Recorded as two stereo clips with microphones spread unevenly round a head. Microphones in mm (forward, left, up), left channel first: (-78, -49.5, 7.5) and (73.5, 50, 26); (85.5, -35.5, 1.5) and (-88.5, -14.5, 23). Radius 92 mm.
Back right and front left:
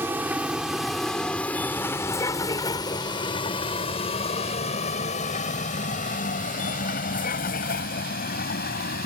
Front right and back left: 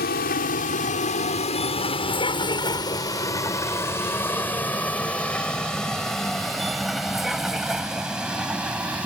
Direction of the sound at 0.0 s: 40° right.